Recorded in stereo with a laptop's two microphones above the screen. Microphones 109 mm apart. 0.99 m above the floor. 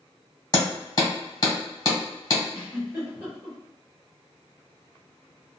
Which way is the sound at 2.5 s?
15° right (ahead or behind).